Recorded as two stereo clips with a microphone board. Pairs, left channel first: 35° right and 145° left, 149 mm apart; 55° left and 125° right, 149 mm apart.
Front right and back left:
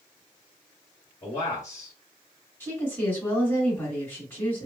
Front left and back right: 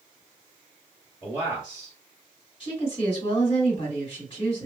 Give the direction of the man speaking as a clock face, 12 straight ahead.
3 o'clock.